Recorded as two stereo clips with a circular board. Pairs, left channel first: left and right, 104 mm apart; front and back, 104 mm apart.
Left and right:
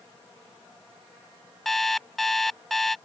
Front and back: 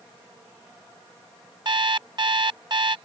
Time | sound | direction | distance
1.6 | an alarm clock | straight behind | ?